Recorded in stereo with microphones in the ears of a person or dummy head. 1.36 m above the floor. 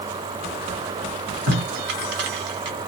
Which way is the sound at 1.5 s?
60° right (ahead or behind).